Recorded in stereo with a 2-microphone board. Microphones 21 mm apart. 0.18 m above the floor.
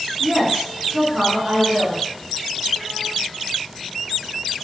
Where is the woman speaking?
20° right (ahead or behind), 1.7 m.